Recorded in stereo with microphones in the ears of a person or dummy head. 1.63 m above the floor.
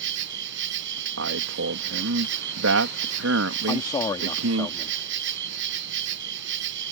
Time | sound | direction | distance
0.0 | an insect | 75° right (ahead or behind) | ?
1.2 | a man speaking | 75° right (ahead or behind) | ?
3.7 | a man speaking | 30° left (ahead or behind) | ?